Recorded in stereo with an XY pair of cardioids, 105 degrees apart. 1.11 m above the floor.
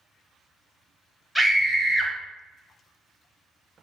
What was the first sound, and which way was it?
A scream, 15° left.